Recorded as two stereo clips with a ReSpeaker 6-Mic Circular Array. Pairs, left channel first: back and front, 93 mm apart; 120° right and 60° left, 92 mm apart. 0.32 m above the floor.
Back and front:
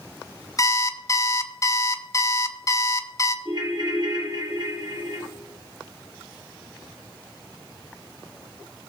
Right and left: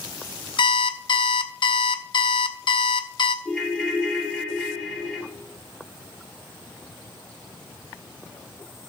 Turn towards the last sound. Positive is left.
turn(degrees=-35)